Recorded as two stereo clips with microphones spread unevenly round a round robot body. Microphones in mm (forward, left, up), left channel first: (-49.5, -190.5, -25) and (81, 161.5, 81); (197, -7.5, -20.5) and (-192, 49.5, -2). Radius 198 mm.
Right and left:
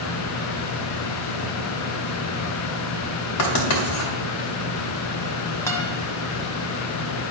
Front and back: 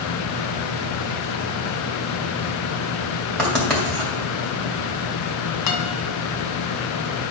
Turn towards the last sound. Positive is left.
turn(degrees=-30)